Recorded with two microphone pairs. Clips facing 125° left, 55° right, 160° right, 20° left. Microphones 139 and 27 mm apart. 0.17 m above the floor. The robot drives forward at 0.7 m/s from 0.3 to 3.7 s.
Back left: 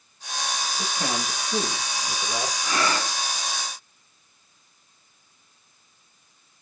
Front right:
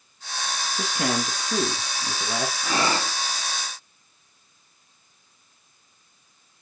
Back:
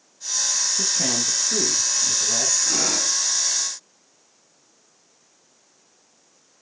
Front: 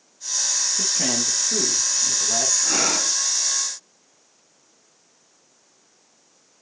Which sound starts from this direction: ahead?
Breathing, at 2.6 s.